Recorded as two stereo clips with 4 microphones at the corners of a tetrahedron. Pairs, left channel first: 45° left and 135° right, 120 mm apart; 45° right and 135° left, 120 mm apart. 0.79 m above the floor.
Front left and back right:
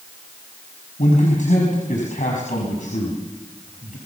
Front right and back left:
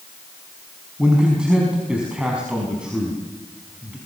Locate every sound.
1.0 s a man speaking: 55° left, 5 m